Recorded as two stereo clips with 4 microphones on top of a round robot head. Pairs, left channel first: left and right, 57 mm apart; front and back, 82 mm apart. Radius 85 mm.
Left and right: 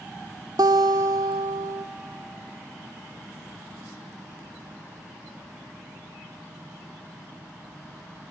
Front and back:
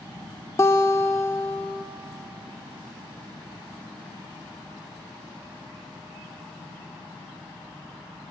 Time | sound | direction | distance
0.6 | a guitar | 65° right | 0.6 m